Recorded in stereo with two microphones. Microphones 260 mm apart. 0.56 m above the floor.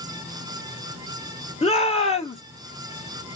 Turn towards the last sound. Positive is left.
turn(degrees=25)  # may be behind; listen again after turning